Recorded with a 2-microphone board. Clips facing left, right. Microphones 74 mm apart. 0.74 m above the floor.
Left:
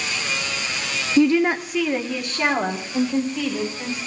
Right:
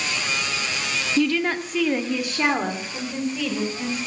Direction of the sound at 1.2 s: 25° left (ahead or behind).